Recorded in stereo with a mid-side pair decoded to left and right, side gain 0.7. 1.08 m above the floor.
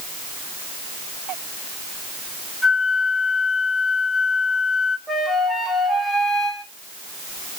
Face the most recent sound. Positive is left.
turn(degrees=0)